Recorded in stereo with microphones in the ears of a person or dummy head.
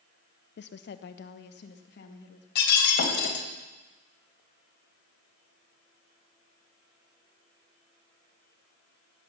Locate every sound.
0.6 s a woman speaking: 60° left (ahead or behind), 0.5 m
2.5 s breaking glass: 65° left (ahead or behind), 3 m